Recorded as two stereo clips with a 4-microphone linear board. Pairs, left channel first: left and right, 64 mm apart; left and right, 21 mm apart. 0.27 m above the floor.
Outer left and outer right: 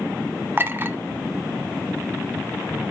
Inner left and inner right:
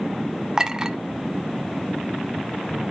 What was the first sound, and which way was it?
A clink, 35° right (ahead or behind).